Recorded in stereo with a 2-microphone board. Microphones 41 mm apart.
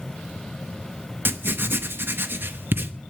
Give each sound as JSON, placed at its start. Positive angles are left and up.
{"t": 1.2, "sound": "writing", "side_deg": -60, "distance_m": 0.8}